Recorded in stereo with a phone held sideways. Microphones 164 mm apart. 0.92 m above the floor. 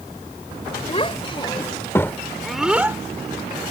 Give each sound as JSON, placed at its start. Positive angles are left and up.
{"t": 0.9, "sound": "a child speaking", "side_deg": 35}